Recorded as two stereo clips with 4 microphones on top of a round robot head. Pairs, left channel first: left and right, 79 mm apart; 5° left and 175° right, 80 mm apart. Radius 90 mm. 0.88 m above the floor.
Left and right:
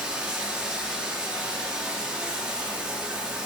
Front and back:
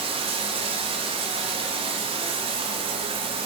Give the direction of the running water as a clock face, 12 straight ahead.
6 o'clock.